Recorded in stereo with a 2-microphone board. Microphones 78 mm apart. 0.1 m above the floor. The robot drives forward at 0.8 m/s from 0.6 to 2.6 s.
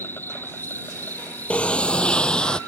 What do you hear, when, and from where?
0.0 s an insect: 25° left (ahead or behind); by 2.7 s 20° left (ahead or behind)
1.5 s a sliding door: 15° left (ahead or behind); by 2.6 s 10° left (ahead or behind)